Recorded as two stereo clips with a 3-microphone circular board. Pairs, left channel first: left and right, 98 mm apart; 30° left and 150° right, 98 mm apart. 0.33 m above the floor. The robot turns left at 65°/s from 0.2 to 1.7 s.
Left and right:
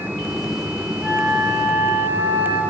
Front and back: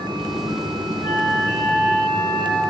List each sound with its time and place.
1.0 s a flute: 10° right, 5.5 m; by 2.6 s 55° right, 5.5 m